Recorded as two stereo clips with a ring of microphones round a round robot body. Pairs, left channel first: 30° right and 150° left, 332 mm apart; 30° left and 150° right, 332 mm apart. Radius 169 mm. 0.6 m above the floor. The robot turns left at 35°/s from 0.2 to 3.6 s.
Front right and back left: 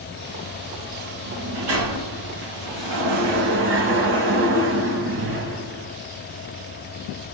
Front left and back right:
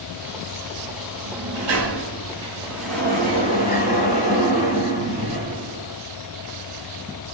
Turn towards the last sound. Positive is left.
turn(degrees=95)